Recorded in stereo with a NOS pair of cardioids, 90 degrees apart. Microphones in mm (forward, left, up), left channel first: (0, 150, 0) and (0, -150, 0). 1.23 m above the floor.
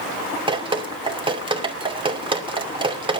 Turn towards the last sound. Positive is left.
turn(degrees=-15)